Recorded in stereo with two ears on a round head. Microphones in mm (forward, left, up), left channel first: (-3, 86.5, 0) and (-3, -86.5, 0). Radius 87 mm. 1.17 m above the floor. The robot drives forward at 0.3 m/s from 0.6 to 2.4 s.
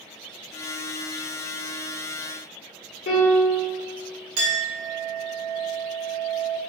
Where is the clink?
75° right (ahead or behind), 1.2 m.